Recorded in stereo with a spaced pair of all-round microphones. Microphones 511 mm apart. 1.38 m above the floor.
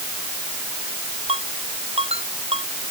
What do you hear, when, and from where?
1.3 s a ringtone: 10° right (ahead or behind)